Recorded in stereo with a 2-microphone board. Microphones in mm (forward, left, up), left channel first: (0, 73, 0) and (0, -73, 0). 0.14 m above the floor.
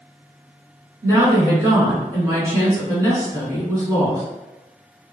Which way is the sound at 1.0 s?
25° right (ahead or behind).